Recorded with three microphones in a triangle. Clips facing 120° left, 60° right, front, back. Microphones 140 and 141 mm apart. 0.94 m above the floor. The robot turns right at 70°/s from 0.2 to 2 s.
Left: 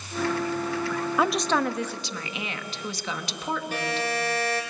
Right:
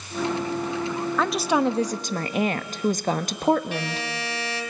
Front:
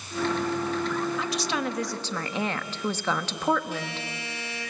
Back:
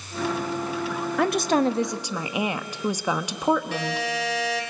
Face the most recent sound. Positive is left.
turn(degrees=170)